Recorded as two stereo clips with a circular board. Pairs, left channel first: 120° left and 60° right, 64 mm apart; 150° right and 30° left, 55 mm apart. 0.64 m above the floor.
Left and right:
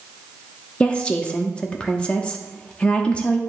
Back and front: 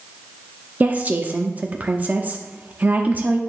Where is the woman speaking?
60° left, 0.9 m.